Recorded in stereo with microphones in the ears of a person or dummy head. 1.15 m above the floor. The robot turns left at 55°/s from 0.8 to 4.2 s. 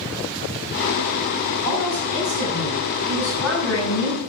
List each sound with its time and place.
1.6 s a woman speaking: 80° right, 5 m; by 4.2 s 135° left, 5 m